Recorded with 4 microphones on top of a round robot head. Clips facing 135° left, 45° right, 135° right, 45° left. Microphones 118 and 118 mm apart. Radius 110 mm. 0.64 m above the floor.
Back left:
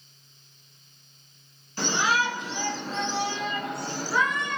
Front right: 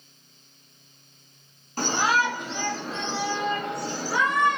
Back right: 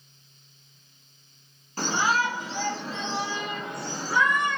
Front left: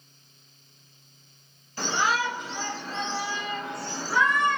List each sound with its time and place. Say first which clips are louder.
1.8 s a shout: front right 2 dB, back right 1 dB; 85° right, 2.5 m; by 4.6 s 60° right, 3.5 m